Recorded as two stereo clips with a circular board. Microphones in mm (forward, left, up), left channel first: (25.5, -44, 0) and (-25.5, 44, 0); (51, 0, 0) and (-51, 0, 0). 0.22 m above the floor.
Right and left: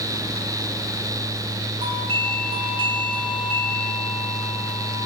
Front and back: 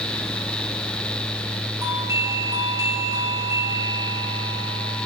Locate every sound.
1.8 s a doorbell: 125° left, 4 m